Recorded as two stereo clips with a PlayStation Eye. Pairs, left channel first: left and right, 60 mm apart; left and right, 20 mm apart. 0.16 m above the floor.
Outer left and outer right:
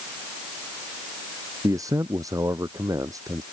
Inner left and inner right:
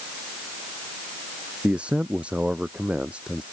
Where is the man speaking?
70° right (ahead or behind).